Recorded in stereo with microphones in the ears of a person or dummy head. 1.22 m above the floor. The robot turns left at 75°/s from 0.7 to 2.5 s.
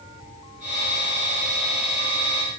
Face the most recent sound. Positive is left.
No sound to turn to.